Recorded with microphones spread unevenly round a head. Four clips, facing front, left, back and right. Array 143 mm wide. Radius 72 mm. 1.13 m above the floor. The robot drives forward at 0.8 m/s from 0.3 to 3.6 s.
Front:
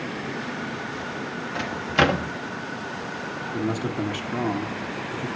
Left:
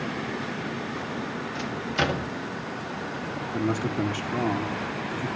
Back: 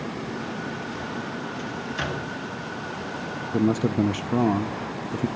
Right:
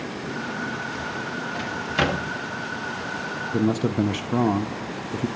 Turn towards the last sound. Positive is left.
turn(degrees=-135)